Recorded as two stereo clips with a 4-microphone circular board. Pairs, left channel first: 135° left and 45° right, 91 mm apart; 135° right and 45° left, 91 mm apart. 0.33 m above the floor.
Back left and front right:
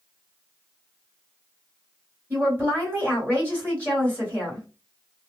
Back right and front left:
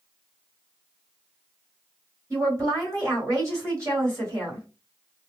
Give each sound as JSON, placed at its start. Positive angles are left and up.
{"t": 2.3, "sound": "a woman speaking", "azimuth_deg": 10, "distance_m": 1.7}